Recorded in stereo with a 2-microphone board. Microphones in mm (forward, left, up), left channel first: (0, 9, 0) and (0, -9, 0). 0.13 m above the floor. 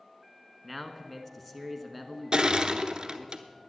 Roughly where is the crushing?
Right.